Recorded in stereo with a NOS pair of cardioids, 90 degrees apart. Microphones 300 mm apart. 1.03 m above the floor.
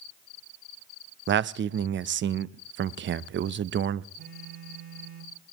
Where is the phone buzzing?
35° right, 7.5 m.